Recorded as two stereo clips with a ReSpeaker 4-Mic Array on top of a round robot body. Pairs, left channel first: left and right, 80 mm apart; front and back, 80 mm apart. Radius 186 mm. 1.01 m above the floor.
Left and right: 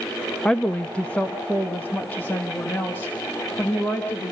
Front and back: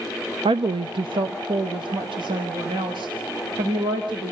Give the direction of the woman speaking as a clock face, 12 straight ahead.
6 o'clock.